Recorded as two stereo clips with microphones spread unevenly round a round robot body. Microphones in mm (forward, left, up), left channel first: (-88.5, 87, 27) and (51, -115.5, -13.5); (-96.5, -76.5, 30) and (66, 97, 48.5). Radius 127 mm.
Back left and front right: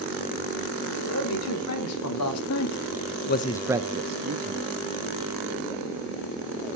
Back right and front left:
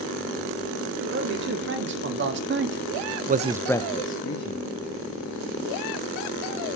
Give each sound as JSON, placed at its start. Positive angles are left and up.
{"t": 1.0, "sound": "a man speaking", "azimuth_deg": 90, "distance_m": 3.5}